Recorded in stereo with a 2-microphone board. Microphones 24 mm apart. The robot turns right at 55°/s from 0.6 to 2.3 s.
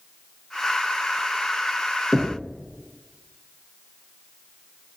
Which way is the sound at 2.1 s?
Centre (ahead or behind).